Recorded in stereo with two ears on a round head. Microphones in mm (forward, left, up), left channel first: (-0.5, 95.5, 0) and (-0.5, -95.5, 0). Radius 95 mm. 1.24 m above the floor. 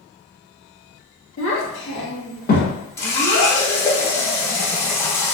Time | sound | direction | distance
1.4 | a child speaking | 70° left (ahead or behind) | 1.0 m
3.0 | a running tap | 10° left (ahead or behind) | 0.6 m